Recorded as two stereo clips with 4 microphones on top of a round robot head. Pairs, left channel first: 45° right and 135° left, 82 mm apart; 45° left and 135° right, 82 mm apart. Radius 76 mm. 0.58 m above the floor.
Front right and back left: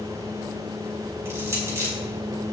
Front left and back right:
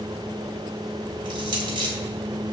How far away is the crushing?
About 3 m.